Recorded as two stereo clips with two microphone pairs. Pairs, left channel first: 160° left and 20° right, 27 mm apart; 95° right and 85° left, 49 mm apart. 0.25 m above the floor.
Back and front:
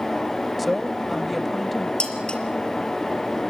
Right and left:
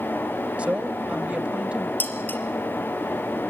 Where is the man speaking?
85° left, 1.0 m.